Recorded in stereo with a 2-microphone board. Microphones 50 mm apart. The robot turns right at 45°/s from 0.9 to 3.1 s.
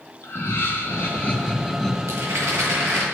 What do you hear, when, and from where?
0.2 s laughter: 130° left, 3.5 m; by 2.0 s 175° left, 3.5 m
2.1 s a rattle: 105° right, 7.5 m; by 3.0 s 65° right, 7.5 m